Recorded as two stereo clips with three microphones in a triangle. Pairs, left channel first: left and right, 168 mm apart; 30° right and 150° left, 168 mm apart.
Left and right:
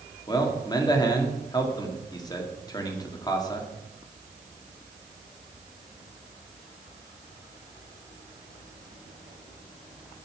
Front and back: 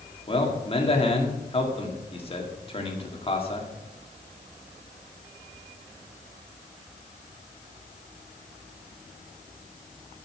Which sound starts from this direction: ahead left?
A man speaking, at 0.3 s.